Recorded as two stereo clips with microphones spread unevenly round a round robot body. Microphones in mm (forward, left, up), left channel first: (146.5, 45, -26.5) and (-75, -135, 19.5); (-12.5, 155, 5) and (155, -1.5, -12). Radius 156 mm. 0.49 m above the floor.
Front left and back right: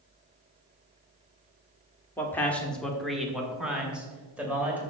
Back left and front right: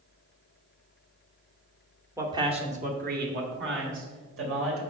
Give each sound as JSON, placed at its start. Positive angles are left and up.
{"t": 2.2, "sound": "a man speaking", "azimuth_deg": 0, "distance_m": 1.0}